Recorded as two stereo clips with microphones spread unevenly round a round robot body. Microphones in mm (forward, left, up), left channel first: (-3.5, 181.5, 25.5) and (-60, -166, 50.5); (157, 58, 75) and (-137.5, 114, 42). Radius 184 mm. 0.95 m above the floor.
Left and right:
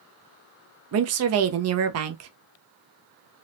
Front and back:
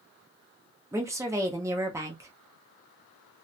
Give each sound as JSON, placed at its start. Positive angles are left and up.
{"t": 0.9, "sound": "a woman speaking", "azimuth_deg": -125, "distance_m": 0.5}